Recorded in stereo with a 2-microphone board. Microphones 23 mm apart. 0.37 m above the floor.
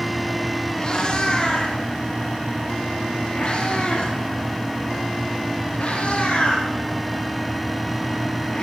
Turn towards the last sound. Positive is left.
turn(degrees=70)  # may be behind; listen again after turning